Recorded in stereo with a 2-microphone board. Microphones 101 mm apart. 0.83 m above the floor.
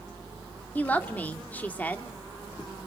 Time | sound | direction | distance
0.8 | a woman speaking | 15° left (ahead or behind) | 1.5 m